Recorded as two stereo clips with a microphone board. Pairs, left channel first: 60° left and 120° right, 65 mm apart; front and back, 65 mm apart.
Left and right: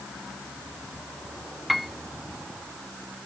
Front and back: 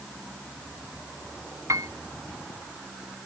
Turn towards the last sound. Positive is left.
turn(degrees=150)